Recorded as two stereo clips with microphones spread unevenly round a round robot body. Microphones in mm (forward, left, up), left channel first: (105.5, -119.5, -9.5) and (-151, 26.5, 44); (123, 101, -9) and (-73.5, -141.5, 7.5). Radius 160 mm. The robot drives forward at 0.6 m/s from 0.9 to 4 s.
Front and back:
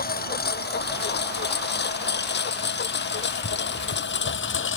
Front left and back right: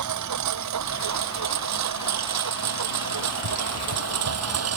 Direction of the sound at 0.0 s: 90° right.